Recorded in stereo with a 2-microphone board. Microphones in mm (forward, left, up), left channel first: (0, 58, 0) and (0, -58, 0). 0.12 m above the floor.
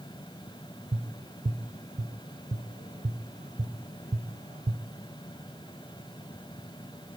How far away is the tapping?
About 2 m.